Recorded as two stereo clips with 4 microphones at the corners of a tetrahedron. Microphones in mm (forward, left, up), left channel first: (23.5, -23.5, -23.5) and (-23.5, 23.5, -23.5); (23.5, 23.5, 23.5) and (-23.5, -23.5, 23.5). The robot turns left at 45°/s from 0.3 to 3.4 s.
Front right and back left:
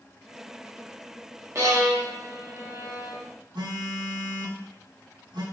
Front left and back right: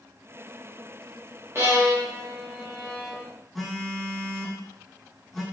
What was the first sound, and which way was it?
A violin, 175° left.